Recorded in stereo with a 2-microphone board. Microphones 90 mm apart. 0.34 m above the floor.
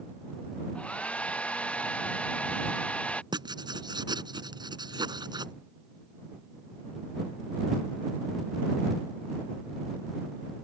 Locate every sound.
0.8 s a hair dryer: 15° left (ahead or behind)
3.3 s writing: 55° right (ahead or behind)